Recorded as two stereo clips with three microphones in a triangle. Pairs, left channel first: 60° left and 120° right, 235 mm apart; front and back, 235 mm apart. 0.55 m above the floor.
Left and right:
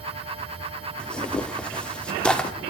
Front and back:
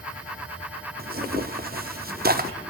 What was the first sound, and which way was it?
Tearing paper, 145° left.